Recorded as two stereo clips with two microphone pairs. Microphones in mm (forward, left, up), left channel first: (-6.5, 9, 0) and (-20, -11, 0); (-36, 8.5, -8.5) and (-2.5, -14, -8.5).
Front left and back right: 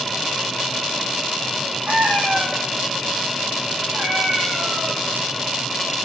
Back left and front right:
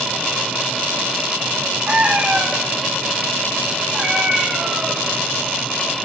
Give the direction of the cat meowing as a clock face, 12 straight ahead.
3 o'clock.